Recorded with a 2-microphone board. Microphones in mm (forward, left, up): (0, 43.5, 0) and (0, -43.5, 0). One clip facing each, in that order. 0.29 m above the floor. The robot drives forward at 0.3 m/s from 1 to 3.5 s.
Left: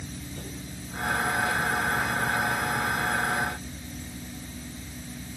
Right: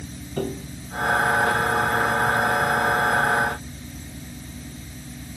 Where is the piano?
65° right (ahead or behind).